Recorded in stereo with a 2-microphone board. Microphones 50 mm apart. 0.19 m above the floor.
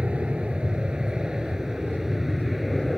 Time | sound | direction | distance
0.0 | an aircraft | 25° right (ahead or behind) | ?